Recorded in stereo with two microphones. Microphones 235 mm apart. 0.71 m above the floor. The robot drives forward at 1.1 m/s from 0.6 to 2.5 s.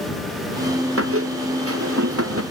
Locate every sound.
1.0 s a squeak: 75° right (ahead or behind); by 2.4 s 80° right